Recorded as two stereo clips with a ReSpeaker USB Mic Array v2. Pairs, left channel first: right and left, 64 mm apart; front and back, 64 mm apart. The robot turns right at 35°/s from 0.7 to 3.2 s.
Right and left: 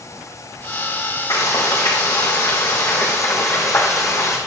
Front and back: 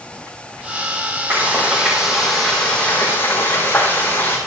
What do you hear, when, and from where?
1.3 s frying: 125° right, 4 m; by 4.4 s 55° right, 4 m